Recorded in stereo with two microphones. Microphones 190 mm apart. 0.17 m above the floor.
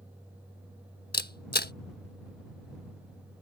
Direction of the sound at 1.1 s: 60° left (ahead or behind).